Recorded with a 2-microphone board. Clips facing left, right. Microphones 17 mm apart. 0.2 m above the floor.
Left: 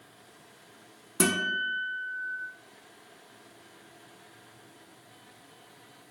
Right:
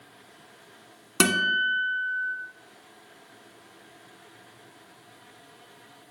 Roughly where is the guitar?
Right.